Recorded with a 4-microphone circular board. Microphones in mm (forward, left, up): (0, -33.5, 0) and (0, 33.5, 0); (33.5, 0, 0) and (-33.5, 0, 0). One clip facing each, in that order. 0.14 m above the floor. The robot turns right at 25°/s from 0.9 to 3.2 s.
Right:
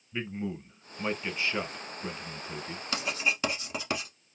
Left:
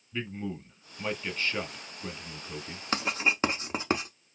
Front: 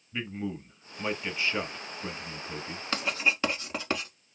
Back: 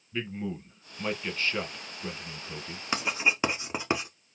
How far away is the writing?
About 0.7 m.